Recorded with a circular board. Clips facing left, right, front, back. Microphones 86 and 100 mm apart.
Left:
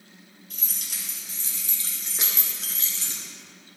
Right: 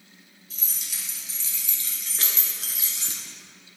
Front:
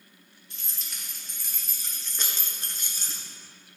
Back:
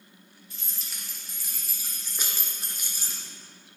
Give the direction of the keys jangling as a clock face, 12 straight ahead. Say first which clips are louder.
Even, even; 9 o'clock.